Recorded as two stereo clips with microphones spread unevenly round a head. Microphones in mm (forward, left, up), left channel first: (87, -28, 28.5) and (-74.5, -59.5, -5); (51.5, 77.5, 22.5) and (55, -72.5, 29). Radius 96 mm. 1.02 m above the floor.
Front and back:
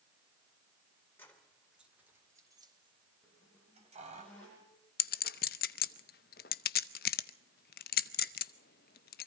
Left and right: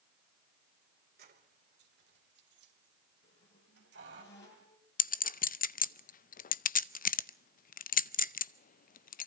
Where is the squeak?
95° left, 8.5 m.